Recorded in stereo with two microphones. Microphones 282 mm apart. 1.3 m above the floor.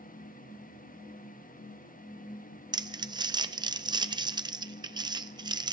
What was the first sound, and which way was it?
Crumpling, 15° right (ahead or behind).